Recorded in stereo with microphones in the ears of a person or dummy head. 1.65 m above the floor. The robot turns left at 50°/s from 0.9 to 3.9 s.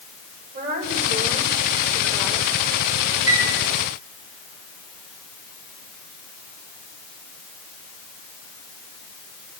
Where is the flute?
85° right, 1.4 m; by 3.5 s 75° right (ahead or behind), 1.4 m.